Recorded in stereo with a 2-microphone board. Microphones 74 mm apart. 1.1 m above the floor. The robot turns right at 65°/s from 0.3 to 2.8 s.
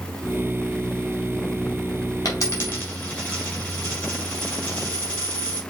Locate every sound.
2.2 s a dropped coin: 50° left (ahead or behind), 3 m; by 5.6 s 15° left (ahead or behind), 3 m